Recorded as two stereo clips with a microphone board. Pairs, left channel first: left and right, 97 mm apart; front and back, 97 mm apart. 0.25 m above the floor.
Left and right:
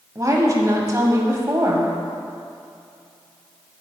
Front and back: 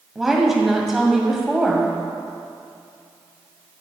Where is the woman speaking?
95° right, 1.2 m.